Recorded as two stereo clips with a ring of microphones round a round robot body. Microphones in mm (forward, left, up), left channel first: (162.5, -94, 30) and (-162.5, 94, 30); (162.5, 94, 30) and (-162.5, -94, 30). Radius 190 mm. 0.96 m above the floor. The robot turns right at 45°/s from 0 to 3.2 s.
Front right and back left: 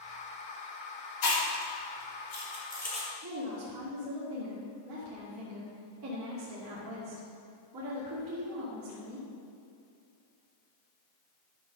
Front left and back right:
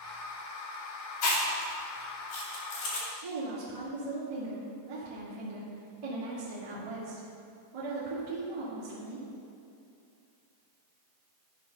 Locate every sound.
1.2 s chewing: 20° right, 3 m; by 3.1 s 65° left, 3 m
3.2 s a woman speaking: 170° right, 2 m